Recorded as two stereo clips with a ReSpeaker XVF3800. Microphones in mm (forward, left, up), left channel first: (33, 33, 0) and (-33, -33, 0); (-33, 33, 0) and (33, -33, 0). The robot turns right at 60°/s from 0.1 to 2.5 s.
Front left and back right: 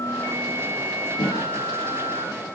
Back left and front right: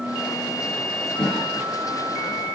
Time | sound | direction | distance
1.2 | a cough | 65° left | 6 m